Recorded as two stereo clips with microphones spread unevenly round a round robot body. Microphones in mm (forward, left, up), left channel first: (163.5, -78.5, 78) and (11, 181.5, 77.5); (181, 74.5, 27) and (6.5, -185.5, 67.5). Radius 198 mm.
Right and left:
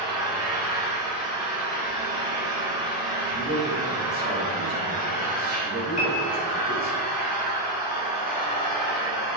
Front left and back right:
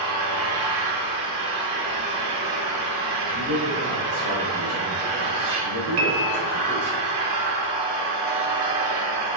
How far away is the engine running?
About 1.4 m.